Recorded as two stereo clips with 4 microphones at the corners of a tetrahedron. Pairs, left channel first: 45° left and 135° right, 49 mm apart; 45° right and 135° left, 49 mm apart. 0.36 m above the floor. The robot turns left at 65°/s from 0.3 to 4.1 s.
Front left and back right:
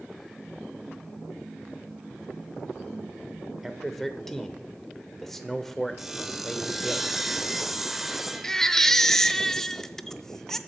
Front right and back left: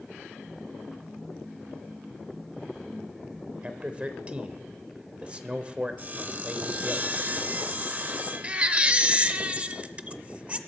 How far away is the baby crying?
About 0.5 m.